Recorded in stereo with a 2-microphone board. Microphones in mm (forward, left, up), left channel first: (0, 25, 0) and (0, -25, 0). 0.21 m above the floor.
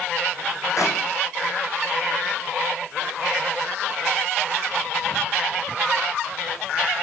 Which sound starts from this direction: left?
A clap, at 0.8 s.